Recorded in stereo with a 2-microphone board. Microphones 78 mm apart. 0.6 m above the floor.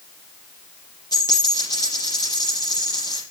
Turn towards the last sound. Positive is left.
turn(degrees=55)  # may be behind; listen again after turning